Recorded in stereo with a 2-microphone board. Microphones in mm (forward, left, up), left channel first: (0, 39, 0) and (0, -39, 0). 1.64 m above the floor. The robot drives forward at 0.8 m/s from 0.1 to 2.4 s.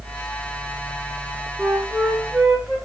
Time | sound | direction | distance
1.6 | a flute | centre (ahead or behind) | 4 m